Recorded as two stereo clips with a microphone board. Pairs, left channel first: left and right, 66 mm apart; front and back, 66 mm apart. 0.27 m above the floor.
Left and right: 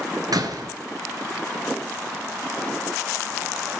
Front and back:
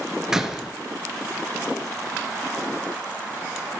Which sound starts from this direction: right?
A door slam, at 0.3 s.